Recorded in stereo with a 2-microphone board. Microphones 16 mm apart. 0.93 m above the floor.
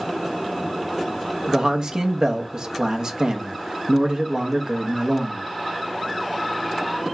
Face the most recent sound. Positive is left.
turn(degrees=-50)  # may be behind; listen again after turning